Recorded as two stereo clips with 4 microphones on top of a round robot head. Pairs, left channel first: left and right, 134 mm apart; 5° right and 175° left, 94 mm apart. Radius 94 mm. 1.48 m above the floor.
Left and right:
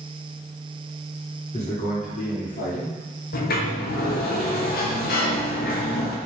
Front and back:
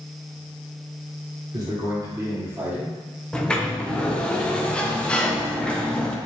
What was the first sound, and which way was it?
A man speaking, 130° left.